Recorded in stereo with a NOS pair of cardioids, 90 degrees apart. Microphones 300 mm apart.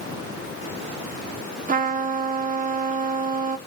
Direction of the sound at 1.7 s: 25° right.